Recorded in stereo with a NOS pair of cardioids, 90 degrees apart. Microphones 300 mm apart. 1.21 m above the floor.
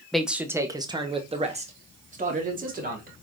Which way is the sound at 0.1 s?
Straight ahead.